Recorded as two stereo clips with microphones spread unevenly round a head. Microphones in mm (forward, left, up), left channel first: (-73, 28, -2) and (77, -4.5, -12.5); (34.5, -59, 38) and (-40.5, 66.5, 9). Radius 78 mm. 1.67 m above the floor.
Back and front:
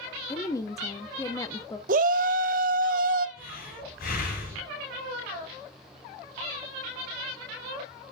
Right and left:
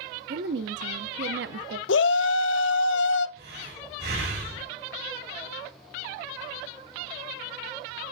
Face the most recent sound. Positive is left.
turn(degrees=140)